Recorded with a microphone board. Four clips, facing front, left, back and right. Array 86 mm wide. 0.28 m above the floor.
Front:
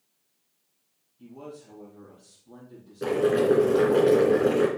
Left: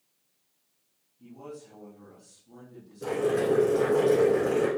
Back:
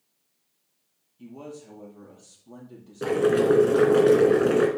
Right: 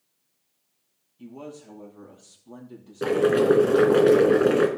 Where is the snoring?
No snoring in this recording.